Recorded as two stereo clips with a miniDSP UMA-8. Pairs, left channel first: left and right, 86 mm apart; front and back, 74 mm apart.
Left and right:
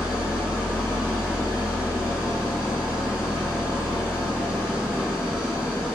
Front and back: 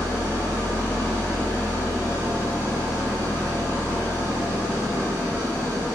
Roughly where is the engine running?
Ahead.